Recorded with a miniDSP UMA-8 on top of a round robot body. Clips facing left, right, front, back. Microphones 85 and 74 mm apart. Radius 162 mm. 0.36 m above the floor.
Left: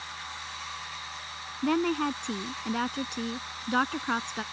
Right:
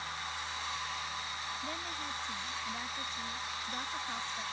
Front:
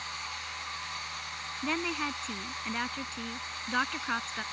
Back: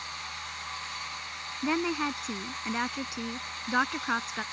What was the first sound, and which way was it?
A woman speaking, 105° left.